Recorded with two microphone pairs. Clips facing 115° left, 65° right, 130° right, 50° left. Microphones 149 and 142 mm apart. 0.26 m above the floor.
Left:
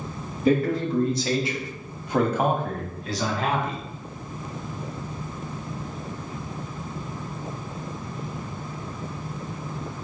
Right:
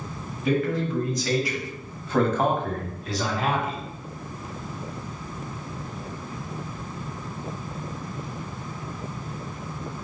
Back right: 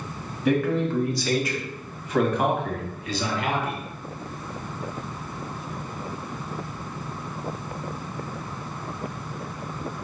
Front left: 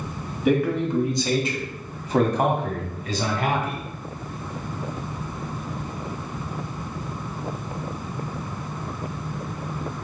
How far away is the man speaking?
About 1.2 m.